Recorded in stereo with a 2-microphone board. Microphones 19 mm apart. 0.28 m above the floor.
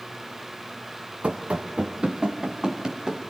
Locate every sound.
1.2 s running footsteps: 75° right (ahead or behind), 1.3 m; by 3.2 s 30° right (ahead or behind), 2.5 m